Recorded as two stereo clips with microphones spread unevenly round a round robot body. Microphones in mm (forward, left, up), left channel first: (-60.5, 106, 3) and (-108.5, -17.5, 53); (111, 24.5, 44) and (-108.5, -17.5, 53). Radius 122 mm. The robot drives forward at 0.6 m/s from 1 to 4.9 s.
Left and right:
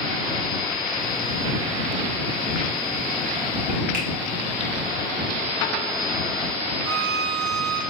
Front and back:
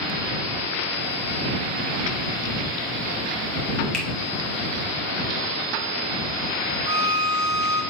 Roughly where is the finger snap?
Right.